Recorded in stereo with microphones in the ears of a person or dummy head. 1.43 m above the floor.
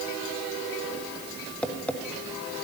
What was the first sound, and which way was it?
Tapping, 10° left (ahead or behind).